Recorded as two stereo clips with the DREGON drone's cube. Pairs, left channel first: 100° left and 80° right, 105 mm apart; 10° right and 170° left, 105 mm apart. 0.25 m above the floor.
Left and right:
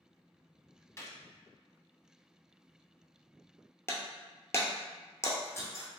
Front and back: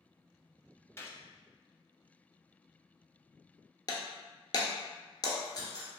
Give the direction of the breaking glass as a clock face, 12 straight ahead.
11 o'clock.